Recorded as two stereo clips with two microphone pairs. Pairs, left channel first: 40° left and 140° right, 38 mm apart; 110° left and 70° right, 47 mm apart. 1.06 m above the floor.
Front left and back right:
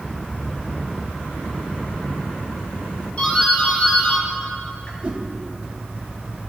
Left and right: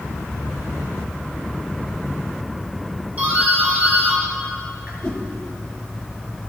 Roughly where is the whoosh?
Behind.